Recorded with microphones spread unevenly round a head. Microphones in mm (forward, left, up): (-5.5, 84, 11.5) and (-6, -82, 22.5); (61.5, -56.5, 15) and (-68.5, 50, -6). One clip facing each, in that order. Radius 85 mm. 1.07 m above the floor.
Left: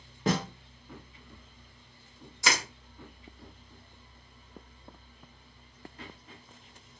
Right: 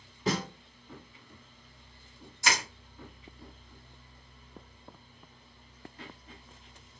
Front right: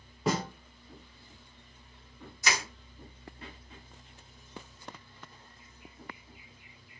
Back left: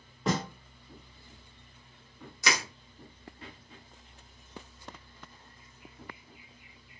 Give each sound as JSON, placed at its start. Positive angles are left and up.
{"t": 0.3, "sound": "a snare drum", "azimuth_deg": 50, "distance_m": 1.0}
{"t": 2.4, "sound": "crushing", "azimuth_deg": 110, "distance_m": 1.0}